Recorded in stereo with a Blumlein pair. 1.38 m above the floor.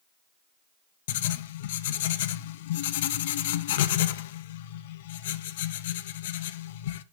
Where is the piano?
I don't hear a piano.